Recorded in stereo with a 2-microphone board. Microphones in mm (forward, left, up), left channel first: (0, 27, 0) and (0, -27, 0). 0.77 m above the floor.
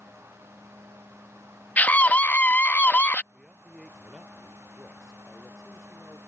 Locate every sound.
1.8 s a scream: 30° left (ahead or behind)
3.3 s a man speaking: 5° right (ahead or behind)